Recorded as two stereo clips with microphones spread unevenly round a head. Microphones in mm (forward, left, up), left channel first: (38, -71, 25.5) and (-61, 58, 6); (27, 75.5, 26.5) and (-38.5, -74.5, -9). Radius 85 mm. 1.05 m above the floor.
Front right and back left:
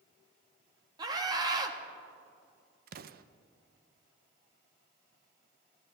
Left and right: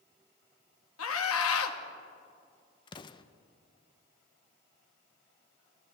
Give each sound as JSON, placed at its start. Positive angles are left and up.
{"t": 1.0, "sound": "a scream", "azimuth_deg": 60, "distance_m": 1.5}
{"t": 2.9, "sound": "an explosion", "azimuth_deg": 135, "distance_m": 0.6}